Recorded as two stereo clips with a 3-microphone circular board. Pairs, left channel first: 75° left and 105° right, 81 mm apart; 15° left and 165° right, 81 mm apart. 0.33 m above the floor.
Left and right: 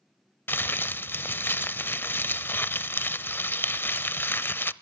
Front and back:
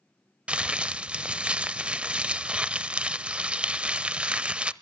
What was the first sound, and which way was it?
Crumpling, 125° left.